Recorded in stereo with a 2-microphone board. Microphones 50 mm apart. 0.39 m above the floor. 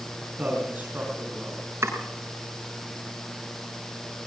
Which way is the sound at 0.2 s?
30° right (ahead or behind).